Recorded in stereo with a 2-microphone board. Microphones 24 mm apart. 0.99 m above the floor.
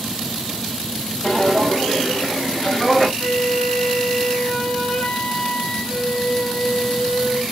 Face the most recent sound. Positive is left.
turn(degrees=45)  # may be behind; listen again after turning